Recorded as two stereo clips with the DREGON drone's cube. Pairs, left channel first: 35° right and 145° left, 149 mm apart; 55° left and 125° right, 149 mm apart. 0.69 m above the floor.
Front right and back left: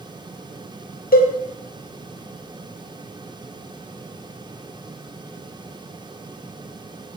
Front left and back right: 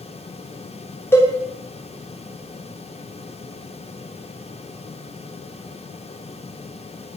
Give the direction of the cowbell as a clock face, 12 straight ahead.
1 o'clock.